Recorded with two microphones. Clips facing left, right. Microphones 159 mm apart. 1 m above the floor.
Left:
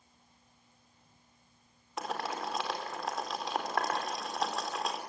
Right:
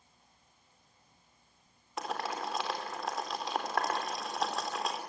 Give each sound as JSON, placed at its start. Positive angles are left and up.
{"t": 2.0, "sound": "boiling", "side_deg": 0, "distance_m": 4.0}